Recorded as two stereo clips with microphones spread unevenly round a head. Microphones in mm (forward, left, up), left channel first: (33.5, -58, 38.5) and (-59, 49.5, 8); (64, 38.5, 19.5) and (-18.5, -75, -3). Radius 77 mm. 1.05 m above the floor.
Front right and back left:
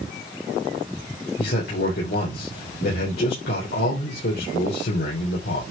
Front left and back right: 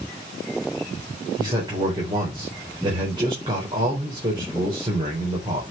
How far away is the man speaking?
About 4 m.